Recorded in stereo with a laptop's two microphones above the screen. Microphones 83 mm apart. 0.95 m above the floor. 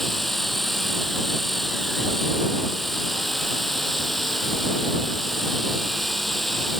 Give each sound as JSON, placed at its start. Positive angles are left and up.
{"t": 0.0, "sound": "a machine running", "side_deg": 0}